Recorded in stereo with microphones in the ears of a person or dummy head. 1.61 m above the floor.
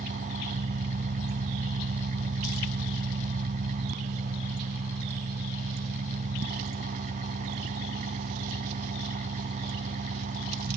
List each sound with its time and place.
0.0 s an engine running: 45° right (ahead or behind)